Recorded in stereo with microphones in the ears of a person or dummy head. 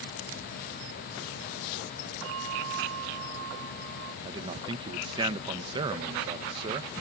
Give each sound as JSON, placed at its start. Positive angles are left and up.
{"t": 2.2, "sound": "a bell", "side_deg": -65}
{"t": 4.2, "sound": "a man speaking", "side_deg": -25}